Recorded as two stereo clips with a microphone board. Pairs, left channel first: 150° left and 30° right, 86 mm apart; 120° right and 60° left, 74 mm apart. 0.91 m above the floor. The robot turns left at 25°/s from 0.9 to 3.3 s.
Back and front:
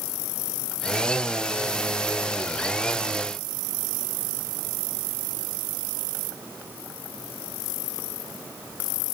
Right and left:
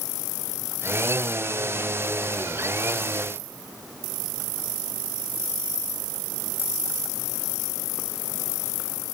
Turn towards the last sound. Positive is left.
No sound to turn to.